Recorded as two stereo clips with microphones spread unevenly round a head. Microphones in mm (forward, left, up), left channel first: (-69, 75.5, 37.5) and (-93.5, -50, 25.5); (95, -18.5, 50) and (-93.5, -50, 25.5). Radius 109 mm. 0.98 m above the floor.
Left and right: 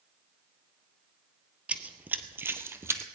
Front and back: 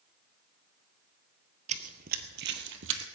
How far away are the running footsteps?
About 1.0 m.